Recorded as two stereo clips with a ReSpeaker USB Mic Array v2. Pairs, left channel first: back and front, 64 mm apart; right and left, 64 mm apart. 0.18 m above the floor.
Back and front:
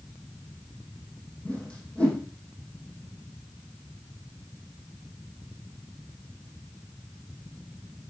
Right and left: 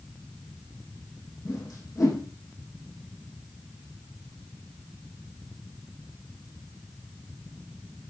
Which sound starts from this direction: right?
A whoosh, at 1.4 s.